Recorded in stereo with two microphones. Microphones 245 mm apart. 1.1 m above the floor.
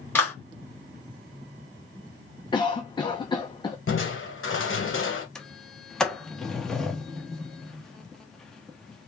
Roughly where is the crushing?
Left.